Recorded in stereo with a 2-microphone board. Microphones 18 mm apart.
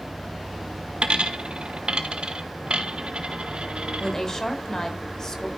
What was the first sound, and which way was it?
A dropped coin, 65° right (ahead or behind).